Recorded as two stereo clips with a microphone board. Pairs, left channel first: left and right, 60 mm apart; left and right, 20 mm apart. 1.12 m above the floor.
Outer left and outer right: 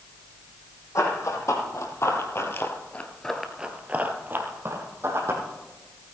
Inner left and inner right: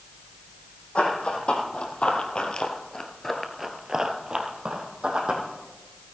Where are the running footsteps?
60° left (ahead or behind), 3 m; by 5.4 s 50° right (ahead or behind), 3 m.